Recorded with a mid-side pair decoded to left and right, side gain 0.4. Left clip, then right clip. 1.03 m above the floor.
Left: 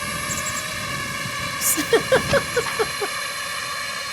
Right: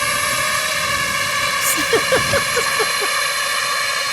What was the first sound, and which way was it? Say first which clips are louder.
A drone: right 8 dB; 65° right.